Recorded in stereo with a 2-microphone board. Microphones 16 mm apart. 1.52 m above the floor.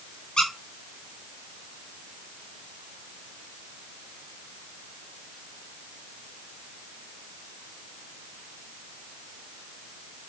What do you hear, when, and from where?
0.4 s a squeak: 75° left (ahead or behind), 4.5 m